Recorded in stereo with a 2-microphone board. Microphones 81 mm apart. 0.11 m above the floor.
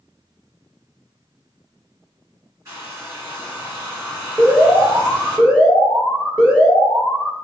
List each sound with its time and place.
2.6 s a hair dryer: 35° right (ahead or behind), 2.0 m
4.4 s an alarm: 15° left (ahead or behind), 1.2 m